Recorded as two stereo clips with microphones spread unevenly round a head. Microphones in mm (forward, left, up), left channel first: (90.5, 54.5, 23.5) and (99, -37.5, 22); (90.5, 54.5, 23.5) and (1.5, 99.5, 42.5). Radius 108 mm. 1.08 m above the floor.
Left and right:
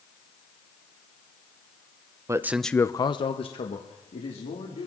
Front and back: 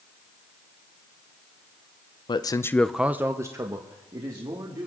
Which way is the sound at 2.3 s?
35° right.